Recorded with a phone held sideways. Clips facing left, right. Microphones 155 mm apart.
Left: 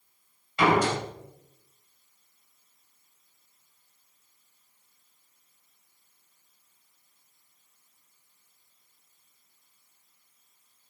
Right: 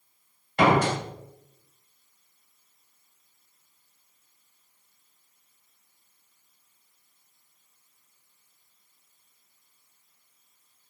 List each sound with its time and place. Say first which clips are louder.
0.6 s a door slam: right 2 dB; 50° right (ahead or behind), 2.5 m